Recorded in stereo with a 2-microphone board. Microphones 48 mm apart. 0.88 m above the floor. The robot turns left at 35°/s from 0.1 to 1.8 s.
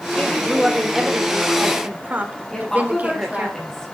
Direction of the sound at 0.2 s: 25° left.